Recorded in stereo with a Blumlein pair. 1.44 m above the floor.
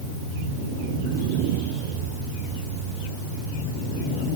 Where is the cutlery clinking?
No cutlery clinking in this recording.